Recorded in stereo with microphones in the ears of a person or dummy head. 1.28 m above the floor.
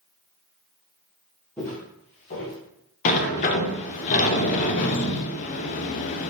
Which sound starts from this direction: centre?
Footsteps, at 1.6 s.